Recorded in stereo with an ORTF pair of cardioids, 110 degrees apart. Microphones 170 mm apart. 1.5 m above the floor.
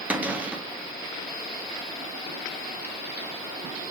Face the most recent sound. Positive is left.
turn(degrees=-10)